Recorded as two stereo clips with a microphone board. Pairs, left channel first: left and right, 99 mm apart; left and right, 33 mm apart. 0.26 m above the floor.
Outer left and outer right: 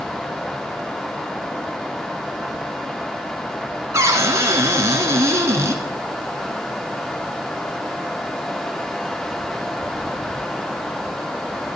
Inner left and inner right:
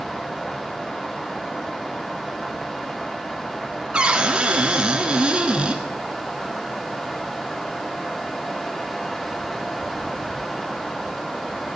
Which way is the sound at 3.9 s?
30° right (ahead or behind).